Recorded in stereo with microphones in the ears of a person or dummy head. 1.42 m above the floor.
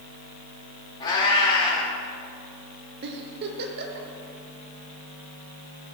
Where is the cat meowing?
25° left (ahead or behind), 1.4 m.